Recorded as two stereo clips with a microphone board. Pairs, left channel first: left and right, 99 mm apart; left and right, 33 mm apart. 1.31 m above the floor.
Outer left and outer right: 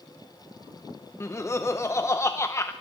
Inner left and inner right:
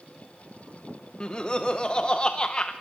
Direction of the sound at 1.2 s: 25° left (ahead or behind).